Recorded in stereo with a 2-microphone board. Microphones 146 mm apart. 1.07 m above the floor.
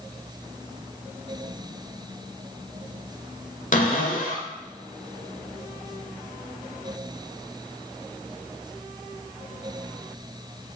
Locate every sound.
3.7 s a cupboard door: 60° left (ahead or behind), 1.4 m